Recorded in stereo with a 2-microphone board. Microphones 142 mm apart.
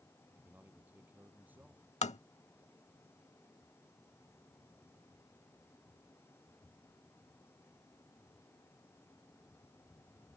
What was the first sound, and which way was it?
A man speaking, 10° right (ahead or behind).